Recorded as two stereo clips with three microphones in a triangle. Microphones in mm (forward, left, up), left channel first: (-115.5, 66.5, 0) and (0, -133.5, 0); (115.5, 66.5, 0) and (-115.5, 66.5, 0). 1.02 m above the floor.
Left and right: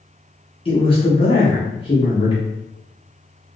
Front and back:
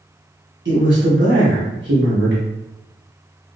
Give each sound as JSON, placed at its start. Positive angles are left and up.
{"t": 0.7, "sound": "a man speaking", "azimuth_deg": -175, "distance_m": 1.2}